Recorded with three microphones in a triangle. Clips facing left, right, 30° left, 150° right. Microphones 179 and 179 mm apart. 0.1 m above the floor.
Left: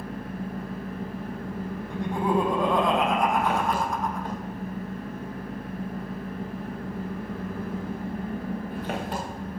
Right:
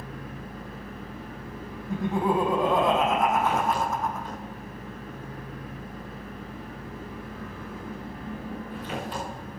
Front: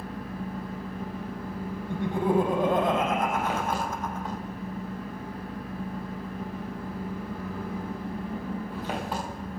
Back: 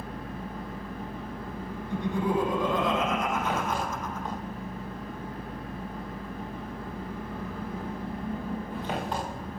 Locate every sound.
0.0 s an engine running: 115° left, 8 m
1.9 s laughter: 5° right, 5 m